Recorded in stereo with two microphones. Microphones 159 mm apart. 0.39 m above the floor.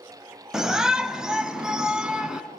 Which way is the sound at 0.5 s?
5° right (ahead or behind).